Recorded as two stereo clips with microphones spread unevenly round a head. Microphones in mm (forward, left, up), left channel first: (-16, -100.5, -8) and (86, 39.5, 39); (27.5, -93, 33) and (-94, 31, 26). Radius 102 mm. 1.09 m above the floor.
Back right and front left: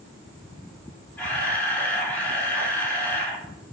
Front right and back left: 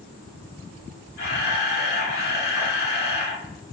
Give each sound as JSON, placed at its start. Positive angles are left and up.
{"t": 1.2, "sound": "a camera shutter", "azimuth_deg": -35, "distance_m": 1.4}